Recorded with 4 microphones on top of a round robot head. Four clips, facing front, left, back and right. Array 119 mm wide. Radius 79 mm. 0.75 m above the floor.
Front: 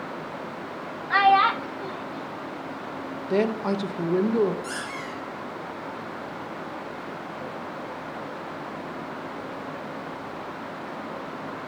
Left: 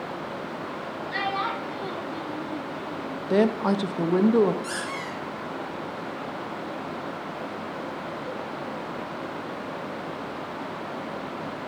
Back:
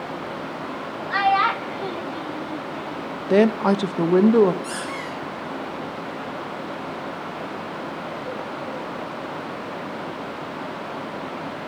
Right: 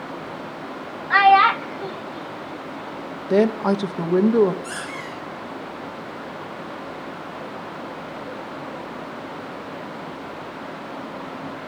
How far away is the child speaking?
About 1.0 m.